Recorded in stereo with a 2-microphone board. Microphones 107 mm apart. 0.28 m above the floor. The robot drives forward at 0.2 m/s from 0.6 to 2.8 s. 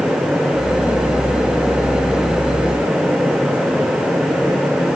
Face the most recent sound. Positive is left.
No sound to turn to.